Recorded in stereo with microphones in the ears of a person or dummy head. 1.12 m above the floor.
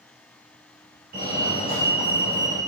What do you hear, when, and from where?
1.1 s a fire alarm: 50° right (ahead or behind), 3 m